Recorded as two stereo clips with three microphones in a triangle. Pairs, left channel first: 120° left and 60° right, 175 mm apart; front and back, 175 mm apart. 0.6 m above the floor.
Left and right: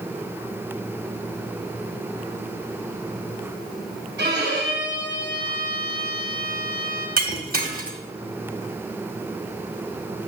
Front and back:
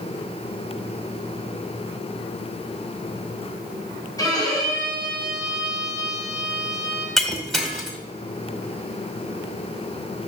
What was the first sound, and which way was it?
A violin, 70° right.